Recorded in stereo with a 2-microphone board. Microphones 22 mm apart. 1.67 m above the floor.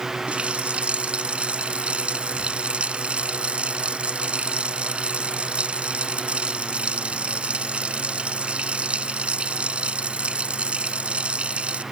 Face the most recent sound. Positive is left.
turn(degrees=-60)  # may be behind; listen again after turning